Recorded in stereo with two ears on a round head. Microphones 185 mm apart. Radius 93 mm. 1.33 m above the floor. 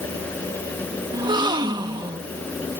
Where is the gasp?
20° right (ahead or behind).